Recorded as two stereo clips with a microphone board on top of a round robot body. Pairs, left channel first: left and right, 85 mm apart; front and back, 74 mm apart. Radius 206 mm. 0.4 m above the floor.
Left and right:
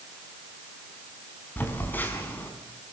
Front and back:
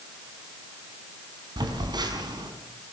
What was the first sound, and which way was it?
A phone buzzing, 160° left.